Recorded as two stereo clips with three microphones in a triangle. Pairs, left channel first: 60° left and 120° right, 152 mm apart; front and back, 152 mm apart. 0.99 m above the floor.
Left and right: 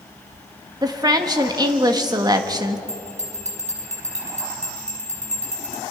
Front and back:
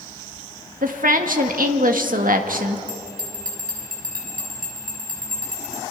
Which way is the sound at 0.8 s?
Straight behind.